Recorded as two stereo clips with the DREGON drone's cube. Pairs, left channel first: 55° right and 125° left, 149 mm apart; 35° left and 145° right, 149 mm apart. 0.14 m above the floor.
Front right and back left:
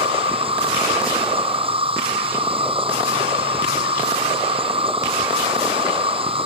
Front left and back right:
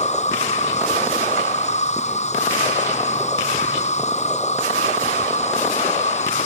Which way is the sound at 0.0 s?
75° left.